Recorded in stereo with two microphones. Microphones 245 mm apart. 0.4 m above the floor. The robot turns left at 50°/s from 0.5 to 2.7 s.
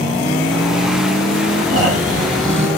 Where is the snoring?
75° right, 1.9 m; by 2.7 s 125° right, 1.9 m.